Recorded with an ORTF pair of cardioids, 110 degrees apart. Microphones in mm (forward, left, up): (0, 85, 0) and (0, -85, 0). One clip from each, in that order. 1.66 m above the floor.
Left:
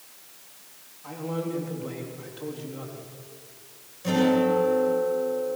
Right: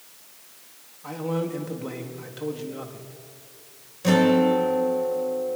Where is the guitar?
45° right, 7.5 m.